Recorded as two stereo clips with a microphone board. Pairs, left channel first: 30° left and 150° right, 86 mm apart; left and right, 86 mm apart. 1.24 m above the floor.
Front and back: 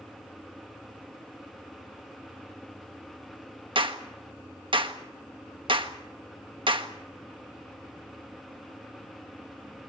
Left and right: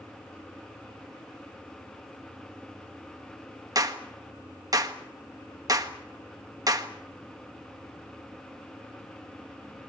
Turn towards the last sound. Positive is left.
turn(degrees=-135)